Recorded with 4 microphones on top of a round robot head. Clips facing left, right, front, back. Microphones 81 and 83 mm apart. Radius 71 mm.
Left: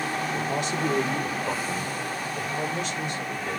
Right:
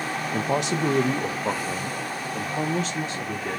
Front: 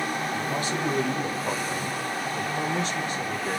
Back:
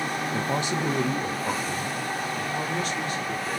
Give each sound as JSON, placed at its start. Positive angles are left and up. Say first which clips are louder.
{"t": 0.3, "sound": "a man speaking", "louder": "right 3 dB, back 1 dB", "azimuth_deg": -115, "distance_m": 1.5}